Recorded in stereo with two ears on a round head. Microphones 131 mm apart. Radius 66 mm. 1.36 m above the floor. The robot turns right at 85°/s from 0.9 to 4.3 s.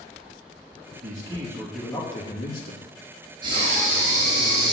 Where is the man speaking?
60° right, 2.5 m; by 2.8 s 90° left, 2.5 m.